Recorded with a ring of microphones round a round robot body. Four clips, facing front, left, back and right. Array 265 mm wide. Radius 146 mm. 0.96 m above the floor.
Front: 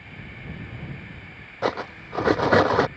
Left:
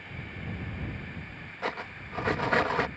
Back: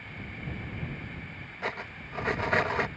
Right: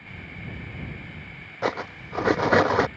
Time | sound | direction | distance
1.6 | cutlery clinking | 35° right | ?